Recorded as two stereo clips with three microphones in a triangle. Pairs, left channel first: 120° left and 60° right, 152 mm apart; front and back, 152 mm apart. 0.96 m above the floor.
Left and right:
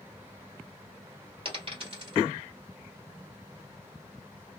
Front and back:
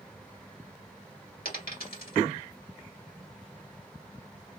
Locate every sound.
1.4 s a dropped coin: 10° right, 1.6 m